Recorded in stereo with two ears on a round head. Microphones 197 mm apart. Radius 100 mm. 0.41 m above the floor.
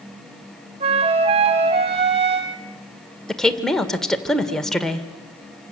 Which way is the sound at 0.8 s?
30° right (ahead or behind).